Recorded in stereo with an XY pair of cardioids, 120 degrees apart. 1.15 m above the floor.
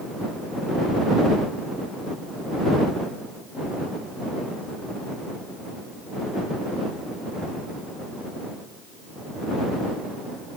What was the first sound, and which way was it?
Only background noise.